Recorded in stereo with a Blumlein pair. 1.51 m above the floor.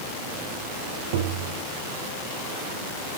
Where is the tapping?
55° right, 1.7 m.